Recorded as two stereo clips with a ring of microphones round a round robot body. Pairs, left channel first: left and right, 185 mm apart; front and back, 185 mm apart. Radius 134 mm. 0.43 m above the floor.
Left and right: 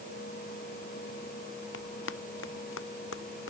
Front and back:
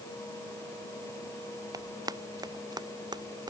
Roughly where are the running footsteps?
Left.